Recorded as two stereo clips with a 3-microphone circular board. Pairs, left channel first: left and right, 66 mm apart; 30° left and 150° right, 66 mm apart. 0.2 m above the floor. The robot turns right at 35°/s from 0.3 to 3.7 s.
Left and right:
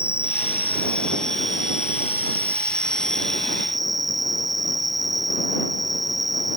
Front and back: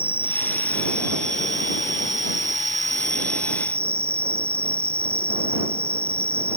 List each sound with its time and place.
0.0 s an insect: 140° left; by 6.6 s 100° right